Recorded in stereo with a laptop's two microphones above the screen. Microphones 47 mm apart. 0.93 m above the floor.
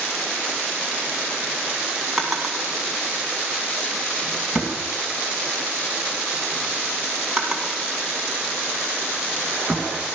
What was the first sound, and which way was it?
A drawer, 10° right (ahead or behind).